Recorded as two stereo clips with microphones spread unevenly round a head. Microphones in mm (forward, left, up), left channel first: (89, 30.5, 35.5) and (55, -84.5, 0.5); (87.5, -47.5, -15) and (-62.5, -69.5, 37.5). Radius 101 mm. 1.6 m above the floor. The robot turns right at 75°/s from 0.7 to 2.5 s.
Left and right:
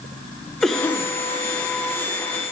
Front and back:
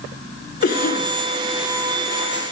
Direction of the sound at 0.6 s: 15° right.